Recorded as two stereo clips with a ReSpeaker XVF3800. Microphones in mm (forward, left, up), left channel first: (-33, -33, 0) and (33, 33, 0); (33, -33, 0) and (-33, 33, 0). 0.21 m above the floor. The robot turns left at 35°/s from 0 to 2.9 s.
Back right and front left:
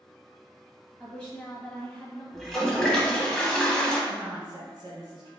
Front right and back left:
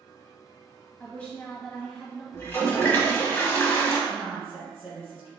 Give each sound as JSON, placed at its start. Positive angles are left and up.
{"t": 1.0, "sound": "a woman speaking", "azimuth_deg": -75, "distance_m": 1.1}
{"t": 2.3, "sound": "a toilet flushing", "azimuth_deg": -50, "distance_m": 0.8}
{"t": 4.1, "sound": "a woman speaking", "azimuth_deg": 55, "distance_m": 1.4}